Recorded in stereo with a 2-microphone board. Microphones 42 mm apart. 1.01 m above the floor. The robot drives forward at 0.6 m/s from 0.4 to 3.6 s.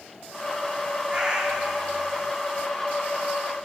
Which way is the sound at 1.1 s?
25° right (ahead or behind).